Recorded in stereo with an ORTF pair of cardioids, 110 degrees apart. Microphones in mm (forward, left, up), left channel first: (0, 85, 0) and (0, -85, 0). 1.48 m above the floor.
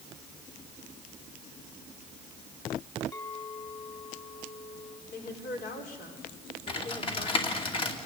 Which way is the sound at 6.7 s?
35° left.